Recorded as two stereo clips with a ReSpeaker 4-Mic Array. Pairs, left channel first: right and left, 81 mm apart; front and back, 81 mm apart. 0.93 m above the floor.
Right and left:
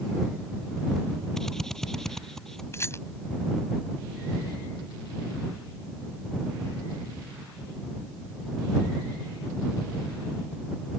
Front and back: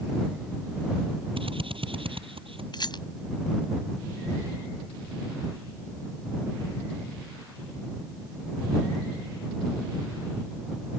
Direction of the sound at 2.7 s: 35° right.